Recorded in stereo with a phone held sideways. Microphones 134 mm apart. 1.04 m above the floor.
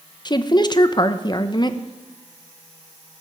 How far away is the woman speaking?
About 0.7 m.